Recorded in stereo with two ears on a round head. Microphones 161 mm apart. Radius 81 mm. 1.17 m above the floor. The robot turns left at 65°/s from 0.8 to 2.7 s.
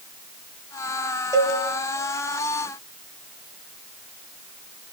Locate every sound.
1.3 s a cowbell: 20° right (ahead or behind), 1.8 m; by 1.6 s 35° right (ahead or behind), 1.8 m